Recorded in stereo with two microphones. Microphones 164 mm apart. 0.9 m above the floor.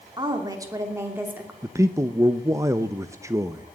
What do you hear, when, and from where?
0.2 s a woman speaking: 25° right (ahead or behind), 2.5 m; by 1.5 s 10° right (ahead or behind), 2.5 m
1.6 s a man speaking: 20° right (ahead or behind), 0.7 m